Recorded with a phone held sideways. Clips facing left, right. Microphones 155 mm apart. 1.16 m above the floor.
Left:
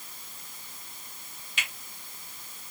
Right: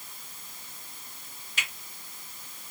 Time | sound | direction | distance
1.6 | a finger snap | 40° right (ahead or behind) | 2.5 m